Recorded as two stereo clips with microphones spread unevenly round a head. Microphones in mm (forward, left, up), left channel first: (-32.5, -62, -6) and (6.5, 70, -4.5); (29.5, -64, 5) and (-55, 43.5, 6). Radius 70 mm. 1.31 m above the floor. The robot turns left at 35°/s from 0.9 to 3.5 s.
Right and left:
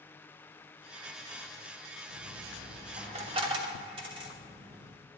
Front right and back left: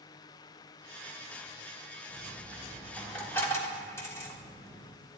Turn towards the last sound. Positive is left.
turn(degrees=20)